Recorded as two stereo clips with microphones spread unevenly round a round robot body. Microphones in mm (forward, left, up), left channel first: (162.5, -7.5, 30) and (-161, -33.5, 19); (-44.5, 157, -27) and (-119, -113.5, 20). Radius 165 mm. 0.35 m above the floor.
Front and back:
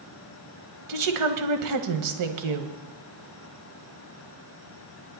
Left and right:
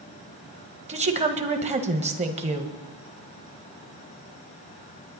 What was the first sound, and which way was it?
A woman speaking, 175° right.